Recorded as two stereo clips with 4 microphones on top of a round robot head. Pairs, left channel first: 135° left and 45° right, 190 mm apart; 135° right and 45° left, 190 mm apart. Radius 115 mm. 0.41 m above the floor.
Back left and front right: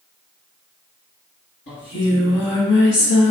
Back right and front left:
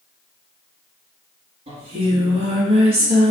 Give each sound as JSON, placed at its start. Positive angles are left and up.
{"t": 1.7, "sound": "singing", "azimuth_deg": 105, "distance_m": 1.5}